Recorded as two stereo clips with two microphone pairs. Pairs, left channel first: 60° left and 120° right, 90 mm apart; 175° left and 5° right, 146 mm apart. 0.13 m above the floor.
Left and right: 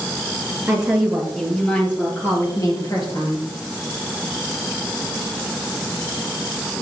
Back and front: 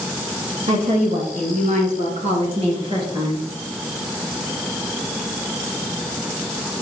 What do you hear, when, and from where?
0.7 s a woman speaking: 40° right, 2.5 m; by 3.5 s 50° left, 2.5 m